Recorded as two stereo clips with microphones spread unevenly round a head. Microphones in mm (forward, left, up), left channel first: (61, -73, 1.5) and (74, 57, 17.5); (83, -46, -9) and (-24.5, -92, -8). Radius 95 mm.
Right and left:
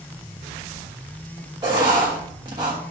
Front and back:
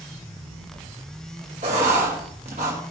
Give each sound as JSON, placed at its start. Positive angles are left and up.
{"t": 1.6, "sound": "writing", "azimuth_deg": 155, "distance_m": 1.3}